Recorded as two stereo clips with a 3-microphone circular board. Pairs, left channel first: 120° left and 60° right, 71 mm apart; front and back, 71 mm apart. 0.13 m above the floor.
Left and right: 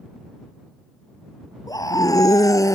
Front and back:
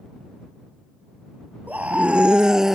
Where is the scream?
115° left; by 2.8 s 100° left.